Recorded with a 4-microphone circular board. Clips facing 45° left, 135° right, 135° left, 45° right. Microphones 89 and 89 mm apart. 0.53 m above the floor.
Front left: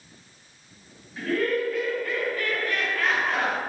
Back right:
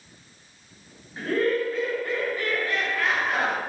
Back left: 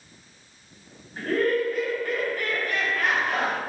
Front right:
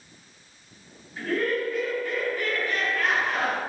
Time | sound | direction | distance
1.2 | laughter | 175° left | 2 m